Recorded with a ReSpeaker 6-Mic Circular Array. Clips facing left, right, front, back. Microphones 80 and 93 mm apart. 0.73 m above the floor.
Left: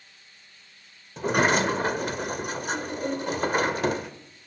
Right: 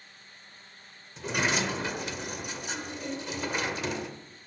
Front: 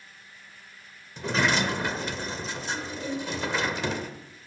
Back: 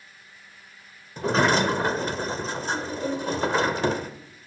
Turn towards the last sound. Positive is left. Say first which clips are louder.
# left 7 dB, back 5 dB
turn(degrees=130)